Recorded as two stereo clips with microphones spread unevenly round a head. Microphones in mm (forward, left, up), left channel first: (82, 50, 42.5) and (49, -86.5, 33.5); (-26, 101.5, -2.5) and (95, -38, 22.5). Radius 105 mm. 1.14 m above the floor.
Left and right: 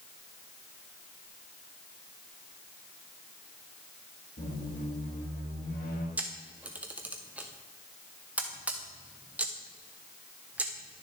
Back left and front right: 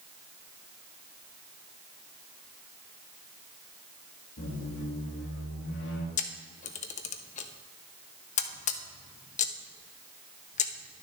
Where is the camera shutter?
175° left, 0.5 m.